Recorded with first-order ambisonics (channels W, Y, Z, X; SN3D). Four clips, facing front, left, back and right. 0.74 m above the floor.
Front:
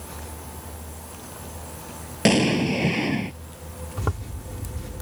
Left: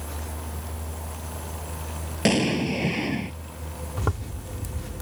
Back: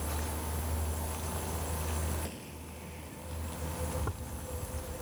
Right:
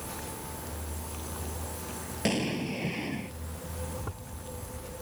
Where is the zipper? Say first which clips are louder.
Left 10 dB, front 8 dB; 45° left.